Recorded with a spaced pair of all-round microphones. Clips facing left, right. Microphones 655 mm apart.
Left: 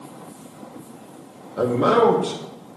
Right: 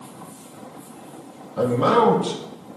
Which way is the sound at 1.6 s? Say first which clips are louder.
Left 1 dB; 30° right (ahead or behind).